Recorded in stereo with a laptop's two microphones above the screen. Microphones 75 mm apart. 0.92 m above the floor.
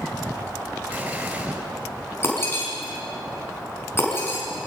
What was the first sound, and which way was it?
An explosion, 20° right (ahead or behind).